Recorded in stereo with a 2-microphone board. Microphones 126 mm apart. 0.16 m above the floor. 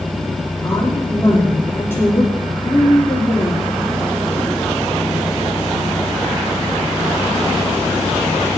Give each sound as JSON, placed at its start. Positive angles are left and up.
{"t": 0.6, "sound": "a woman speaking", "side_deg": 15, "distance_m": 7.5}